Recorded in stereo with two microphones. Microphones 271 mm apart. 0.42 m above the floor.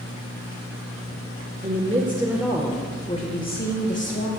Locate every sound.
1.6 s a woman speaking: 35° right (ahead or behind), 1.0 m; by 4.3 s 45° left (ahead or behind), 1.5 m